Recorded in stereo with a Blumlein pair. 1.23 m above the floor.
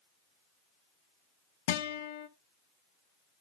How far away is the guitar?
About 0.5 m.